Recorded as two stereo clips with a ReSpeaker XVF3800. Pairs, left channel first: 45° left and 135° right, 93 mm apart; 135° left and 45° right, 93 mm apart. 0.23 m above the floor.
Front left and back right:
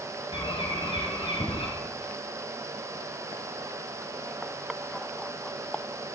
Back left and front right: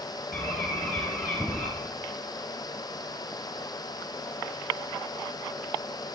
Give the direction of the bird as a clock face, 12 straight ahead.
10 o'clock.